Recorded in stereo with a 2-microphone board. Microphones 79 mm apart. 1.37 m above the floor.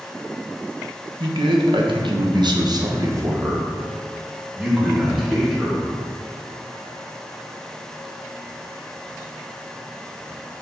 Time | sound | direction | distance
1.2 | a man speaking | 70° right (ahead or behind) | 1.5 m